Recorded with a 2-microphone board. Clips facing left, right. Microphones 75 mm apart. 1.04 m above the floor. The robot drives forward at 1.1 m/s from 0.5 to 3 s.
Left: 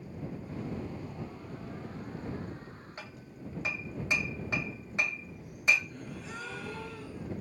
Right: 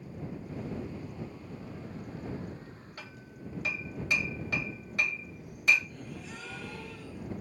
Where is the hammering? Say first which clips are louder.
Even; 25° left (ahead or behind), 1.7 m.